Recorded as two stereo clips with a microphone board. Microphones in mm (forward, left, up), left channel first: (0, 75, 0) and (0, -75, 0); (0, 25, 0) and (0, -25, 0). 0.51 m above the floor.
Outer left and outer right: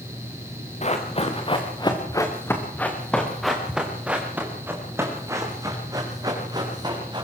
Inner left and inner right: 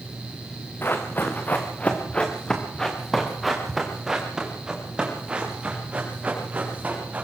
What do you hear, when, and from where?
0.8 s running footsteps: 50° left (ahead or behind), 4 m; by 7.2 s 30° right (ahead or behind), 9 m